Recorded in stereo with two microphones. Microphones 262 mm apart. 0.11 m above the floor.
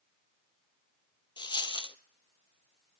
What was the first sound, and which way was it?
A dropped coin, 20° left (ahead or behind).